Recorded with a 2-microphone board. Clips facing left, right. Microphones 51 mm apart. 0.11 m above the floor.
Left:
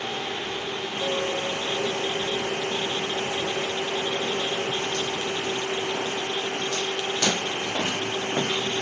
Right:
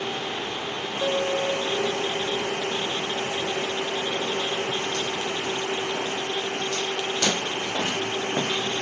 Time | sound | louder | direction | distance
1.0 | a piano | right 3 dB | 25° right (ahead or behind) | 2.5 m